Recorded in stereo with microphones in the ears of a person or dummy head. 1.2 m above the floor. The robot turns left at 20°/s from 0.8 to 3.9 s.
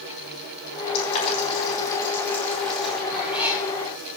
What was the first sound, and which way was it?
Boiling, 35° left (ahead or behind).